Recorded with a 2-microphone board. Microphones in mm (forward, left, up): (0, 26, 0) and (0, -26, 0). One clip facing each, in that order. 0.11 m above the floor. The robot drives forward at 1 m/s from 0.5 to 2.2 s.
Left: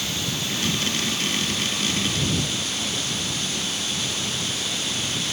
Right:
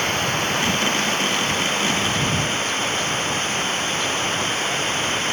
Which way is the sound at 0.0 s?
50° right (ahead or behind).